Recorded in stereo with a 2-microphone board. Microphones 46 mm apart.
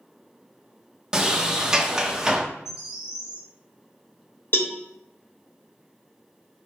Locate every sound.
1.1 s a sliding door: 15° right (ahead or behind), 0.6 m
2.6 s a bird: 5° right (ahead or behind), 1.6 m
4.5 s a cowbell: 45° left (ahead or behind), 0.6 m